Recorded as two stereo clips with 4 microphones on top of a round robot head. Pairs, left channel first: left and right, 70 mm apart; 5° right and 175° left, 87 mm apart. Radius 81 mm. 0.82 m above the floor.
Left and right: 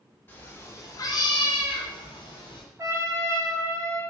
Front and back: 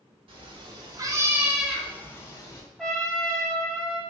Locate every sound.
0.3 s a cat meowing: 155° left, 1.1 m; by 2.6 s 45° left, 1.1 m
2.8 s a trumpet: 95° right, 1.2 m